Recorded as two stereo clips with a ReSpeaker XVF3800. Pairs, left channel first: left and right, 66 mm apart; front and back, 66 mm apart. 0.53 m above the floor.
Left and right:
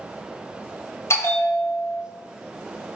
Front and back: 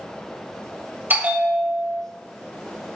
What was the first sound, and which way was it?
A bell, 125° left.